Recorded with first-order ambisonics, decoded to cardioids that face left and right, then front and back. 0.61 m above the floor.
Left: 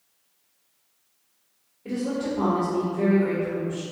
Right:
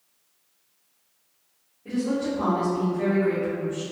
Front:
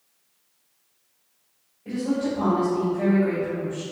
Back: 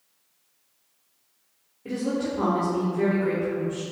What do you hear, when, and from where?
1.9 s a woman speaking: 155° left, 1.3 m